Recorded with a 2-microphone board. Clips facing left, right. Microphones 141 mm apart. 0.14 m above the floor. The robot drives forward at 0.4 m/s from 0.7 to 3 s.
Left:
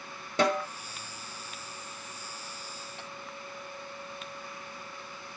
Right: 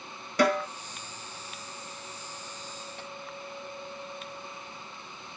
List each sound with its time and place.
0.4 s a snare drum: 25° left (ahead or behind), 1.9 m